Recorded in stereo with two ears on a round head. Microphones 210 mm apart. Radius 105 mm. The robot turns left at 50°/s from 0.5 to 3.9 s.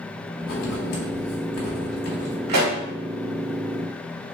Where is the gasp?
I don't hear a gasp.